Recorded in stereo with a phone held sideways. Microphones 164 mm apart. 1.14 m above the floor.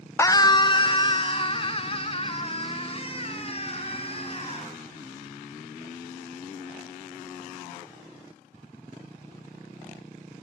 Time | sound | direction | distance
0.2 | a scream | 15° left (ahead or behind) | 0.6 m